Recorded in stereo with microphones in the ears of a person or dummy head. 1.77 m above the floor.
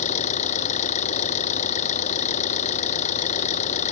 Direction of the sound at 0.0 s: 30° left (ahead or behind).